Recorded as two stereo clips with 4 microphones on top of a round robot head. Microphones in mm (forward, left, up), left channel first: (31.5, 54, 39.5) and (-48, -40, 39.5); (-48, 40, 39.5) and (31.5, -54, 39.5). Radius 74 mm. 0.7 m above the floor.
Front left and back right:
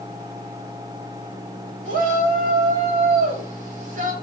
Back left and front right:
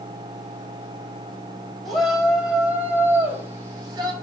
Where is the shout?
140° right, 5.5 m; by 4.1 s 110° right, 6 m.